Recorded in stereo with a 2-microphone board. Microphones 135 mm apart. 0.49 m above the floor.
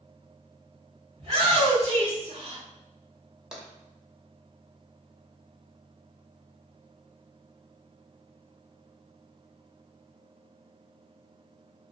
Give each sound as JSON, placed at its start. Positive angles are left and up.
{"t": 1.2, "sound": "a shout", "side_deg": -40, "distance_m": 1.4}
{"t": 3.5, "sound": "tapping", "side_deg": -5, "distance_m": 0.7}